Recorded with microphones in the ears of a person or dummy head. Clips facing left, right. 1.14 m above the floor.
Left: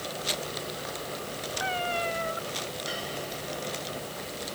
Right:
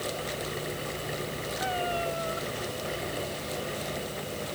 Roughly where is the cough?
No cough in this recording.